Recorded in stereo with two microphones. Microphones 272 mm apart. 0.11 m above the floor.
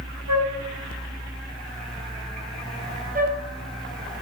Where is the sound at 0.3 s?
75° right (ahead or behind), 2.5 m.